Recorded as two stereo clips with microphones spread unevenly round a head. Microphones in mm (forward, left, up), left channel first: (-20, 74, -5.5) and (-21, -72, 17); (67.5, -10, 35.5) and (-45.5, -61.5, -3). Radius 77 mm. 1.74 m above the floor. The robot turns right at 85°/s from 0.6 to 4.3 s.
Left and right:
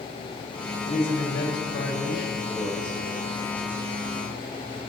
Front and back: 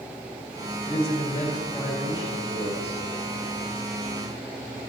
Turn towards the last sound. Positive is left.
turn(degrees=-40)